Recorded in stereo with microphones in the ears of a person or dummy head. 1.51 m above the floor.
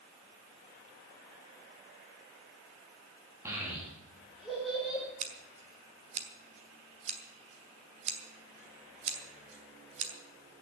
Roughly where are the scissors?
Right.